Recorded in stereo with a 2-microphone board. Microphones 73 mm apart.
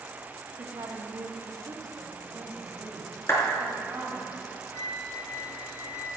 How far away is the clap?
About 3 m.